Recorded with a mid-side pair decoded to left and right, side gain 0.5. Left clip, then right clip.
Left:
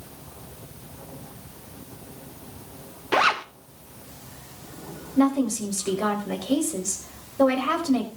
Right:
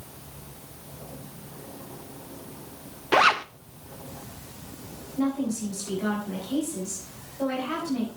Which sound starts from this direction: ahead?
A zipper, at 3.1 s.